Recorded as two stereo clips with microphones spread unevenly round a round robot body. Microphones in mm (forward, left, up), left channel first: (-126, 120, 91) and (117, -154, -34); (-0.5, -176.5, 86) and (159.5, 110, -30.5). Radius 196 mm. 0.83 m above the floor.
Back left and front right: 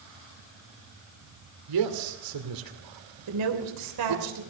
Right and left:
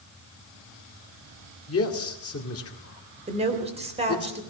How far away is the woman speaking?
About 3 m.